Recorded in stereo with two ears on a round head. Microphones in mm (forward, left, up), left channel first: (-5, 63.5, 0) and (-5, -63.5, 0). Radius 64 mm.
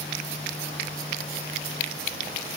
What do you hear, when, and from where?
Only background noise.